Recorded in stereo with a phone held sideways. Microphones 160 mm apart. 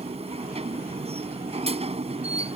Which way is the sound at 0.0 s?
40° right (ahead or behind).